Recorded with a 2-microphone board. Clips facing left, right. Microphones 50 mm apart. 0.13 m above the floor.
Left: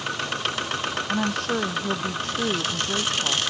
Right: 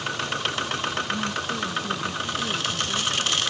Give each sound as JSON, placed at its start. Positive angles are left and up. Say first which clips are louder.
{"t": 1.1, "sound": "a woman speaking", "louder": "left 3 dB", "side_deg": 75}